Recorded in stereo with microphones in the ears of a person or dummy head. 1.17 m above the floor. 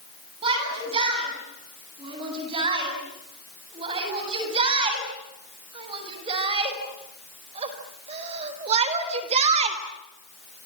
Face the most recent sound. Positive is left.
turn(degrees=-35)  # may be behind; listen again after turning